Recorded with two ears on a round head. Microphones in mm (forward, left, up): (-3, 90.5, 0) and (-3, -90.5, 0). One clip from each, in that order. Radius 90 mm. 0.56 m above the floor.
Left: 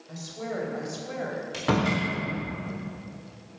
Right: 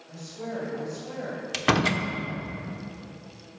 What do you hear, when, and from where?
0.1 s a woman speaking: 65° left (ahead or behind), 3 m; by 1.4 s 55° left (ahead or behind), 3.5 m
1.5 s a door slam: 60° right (ahead or behind), 1.0 m